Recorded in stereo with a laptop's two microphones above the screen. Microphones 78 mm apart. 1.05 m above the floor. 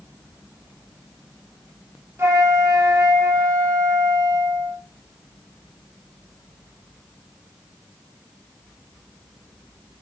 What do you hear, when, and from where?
2.2 s a flute: 35° right (ahead or behind), 0.6 m